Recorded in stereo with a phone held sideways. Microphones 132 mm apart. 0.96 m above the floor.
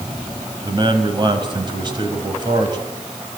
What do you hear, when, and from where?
0.6 s a man speaking: 35° right (ahead or behind), 5 m